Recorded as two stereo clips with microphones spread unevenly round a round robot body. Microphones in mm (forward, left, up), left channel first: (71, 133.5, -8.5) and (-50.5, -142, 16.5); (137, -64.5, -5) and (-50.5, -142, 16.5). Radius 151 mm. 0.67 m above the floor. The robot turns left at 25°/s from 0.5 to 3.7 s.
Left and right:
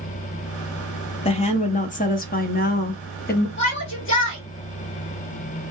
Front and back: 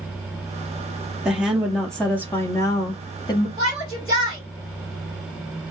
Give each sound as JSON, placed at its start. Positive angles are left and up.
{"t": 1.2, "sound": "a woman speaking", "azimuth_deg": 110, "distance_m": 0.7}
{"t": 3.6, "sound": "a shout", "azimuth_deg": 115, "distance_m": 3.0}